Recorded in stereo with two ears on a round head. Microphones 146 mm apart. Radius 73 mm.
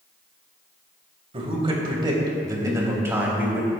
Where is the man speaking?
40° right (ahead or behind), 2.5 m; by 3.7 s 10° right (ahead or behind), 2.5 m.